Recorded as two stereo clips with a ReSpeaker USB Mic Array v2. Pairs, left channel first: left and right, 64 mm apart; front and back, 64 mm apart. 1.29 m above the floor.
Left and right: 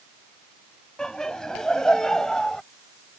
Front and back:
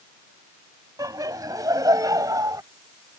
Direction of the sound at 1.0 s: 170° left.